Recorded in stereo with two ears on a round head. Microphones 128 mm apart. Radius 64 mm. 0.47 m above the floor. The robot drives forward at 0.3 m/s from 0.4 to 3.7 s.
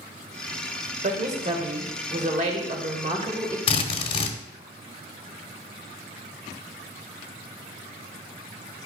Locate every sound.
1.0 s a woman speaking: 55° right (ahead or behind), 2.0 m; by 3.6 s 45° right (ahead or behind), 2 m
3.7 s a drill: 40° left (ahead or behind), 1.1 m